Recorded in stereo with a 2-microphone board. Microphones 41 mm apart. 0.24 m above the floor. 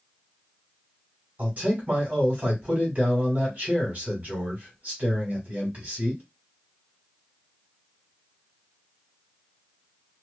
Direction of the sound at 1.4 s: 40° right (ahead or behind).